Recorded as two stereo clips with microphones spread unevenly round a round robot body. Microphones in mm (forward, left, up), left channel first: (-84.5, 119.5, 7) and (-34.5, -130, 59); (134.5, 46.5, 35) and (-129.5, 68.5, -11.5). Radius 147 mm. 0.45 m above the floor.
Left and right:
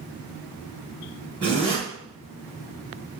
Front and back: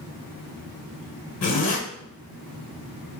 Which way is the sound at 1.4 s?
20° left.